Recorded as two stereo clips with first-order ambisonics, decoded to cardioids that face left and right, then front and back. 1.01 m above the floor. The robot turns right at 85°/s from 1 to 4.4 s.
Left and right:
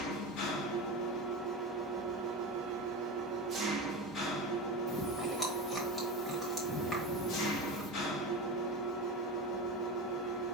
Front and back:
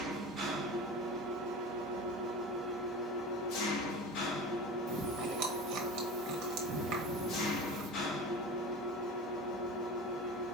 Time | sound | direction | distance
0.0 | an engine running | 115° left | 1.1 m
4.9 | chewing | 170° left | 1.2 m